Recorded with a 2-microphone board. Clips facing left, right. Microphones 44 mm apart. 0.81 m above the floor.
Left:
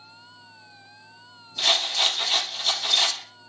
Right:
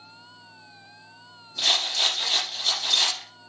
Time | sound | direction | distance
1.6 | a rattle | 15° left (ahead or behind) | 5.5 m